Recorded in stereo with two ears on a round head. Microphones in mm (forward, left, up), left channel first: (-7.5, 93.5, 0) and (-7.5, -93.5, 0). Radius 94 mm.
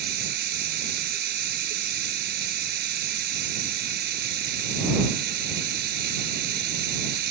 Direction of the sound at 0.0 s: 50° right (ahead or behind).